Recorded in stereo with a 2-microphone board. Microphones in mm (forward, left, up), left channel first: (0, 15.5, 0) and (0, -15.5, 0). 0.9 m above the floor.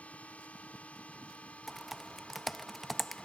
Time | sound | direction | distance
0.0 | a drone | 50° left (ahead or behind) | ?
1.7 | typing on a keyboard | centre (ahead or behind) | ?